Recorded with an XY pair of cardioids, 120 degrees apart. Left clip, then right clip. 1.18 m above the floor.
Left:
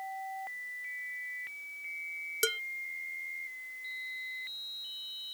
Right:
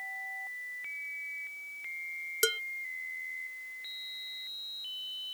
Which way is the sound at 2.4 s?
10° right.